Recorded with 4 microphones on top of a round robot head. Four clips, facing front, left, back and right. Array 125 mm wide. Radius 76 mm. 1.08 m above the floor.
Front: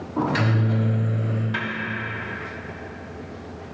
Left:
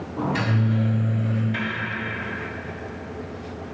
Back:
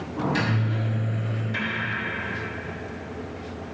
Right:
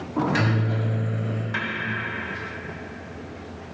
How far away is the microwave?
About 1.6 m.